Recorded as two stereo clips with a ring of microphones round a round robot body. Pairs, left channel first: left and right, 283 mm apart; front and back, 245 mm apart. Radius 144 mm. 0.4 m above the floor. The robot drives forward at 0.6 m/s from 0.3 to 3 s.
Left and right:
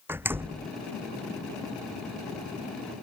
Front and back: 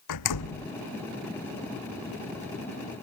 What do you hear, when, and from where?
0.1 s a door slam: 5° right